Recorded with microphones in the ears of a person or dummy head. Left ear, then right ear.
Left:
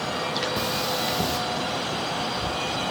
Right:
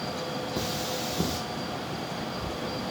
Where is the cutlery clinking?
10° left (ahead or behind), 0.9 m.